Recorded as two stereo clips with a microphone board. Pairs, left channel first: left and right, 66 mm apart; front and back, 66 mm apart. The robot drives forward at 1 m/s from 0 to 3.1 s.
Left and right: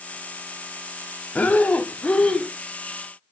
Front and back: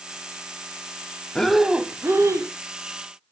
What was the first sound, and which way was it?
Breathing, 60° left.